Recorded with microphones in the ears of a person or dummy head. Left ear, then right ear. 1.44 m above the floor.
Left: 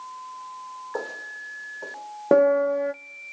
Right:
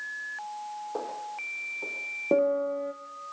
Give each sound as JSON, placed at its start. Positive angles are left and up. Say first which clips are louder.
{"t": 0.9, "sound": "footsteps", "louder": "left 4 dB", "side_deg": 20, "distance_m": 3.5}
{"t": 2.3, "sound": "a piano", "louder": "left 7 dB", "side_deg": 60, "distance_m": 0.6}